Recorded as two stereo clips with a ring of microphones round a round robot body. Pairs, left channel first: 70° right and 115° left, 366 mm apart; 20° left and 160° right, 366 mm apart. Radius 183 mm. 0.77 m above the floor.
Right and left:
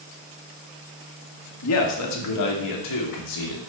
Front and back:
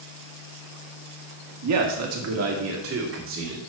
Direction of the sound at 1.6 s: 115° right.